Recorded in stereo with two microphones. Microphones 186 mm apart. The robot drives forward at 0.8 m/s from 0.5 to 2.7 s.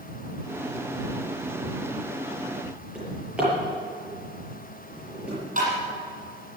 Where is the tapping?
45° right (ahead or behind), 8 m.